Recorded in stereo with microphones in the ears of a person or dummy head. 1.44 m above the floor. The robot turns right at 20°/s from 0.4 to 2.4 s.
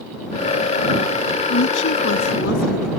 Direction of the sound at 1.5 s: 65° left (ahead or behind).